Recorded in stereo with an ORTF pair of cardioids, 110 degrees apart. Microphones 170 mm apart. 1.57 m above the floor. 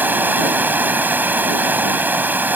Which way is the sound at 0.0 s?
10° right.